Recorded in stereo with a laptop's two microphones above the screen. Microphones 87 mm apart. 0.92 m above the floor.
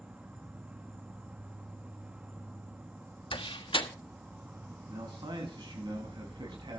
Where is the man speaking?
65° right (ahead or behind), 6.5 m.